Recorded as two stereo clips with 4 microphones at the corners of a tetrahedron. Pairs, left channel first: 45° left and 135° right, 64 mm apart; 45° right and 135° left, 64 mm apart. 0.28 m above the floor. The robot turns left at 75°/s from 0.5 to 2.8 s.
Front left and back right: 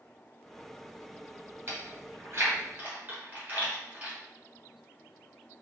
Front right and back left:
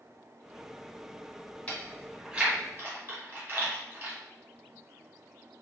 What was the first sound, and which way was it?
Chewing, 110° right.